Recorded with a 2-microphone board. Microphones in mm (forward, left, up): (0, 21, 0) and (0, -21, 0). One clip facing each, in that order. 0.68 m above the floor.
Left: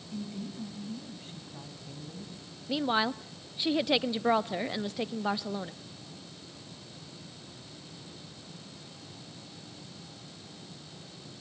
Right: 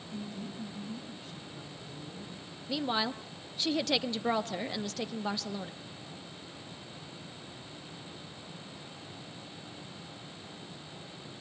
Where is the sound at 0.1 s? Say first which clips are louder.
Left 2 dB; 35° left (ahead or behind), 6 m; by 2.3 s 60° left (ahead or behind), 4.5 m.